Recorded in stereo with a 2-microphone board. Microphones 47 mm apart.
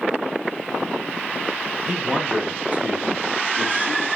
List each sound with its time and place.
1.9 s a man speaking: 15° right (ahead or behind), 1.5 m; by 4.1 s 40° right (ahead or behind), 2 m